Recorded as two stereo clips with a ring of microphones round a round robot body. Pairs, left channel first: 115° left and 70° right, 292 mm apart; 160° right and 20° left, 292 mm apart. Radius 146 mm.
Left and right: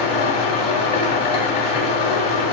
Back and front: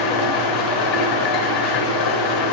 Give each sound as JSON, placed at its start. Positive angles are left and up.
{"t": 0.0, "sound": "an engine running", "azimuth_deg": 180, "distance_m": 1.3}